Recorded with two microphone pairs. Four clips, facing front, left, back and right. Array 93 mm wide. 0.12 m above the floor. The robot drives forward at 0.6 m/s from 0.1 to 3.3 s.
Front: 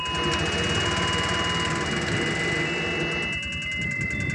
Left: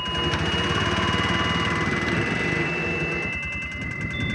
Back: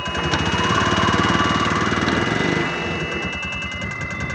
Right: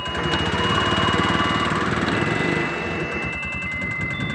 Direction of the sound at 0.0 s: 155° right.